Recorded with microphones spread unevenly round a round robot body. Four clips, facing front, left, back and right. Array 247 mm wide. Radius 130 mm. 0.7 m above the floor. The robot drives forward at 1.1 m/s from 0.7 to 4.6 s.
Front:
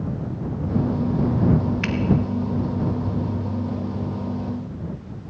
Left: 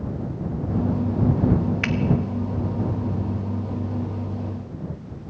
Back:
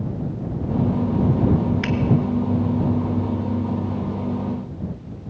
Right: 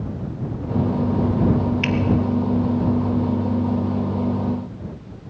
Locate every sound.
1.8 s a finger snap: 75° left, 1.4 m; by 1.9 s 85° left, 1.3 m